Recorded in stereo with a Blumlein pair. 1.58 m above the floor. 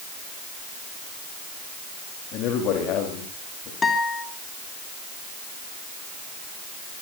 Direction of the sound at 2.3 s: 35° left.